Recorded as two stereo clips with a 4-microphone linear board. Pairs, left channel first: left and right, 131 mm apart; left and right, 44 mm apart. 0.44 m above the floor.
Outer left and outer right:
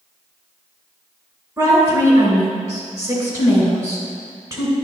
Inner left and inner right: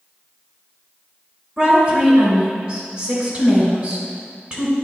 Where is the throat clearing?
I don't hear throat clearing.